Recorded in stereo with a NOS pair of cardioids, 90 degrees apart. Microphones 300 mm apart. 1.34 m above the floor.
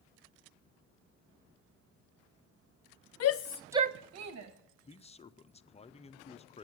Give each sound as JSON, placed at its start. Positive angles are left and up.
{"t": 3.2, "sound": "a shout", "azimuth_deg": 65, "distance_m": 0.9}
{"t": 4.8, "sound": "a man speaking", "azimuth_deg": 20, "distance_m": 0.6}